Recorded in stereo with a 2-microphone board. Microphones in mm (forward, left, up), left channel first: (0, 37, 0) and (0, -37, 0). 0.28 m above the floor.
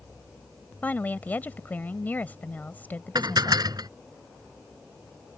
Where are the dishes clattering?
65° right (ahead or behind).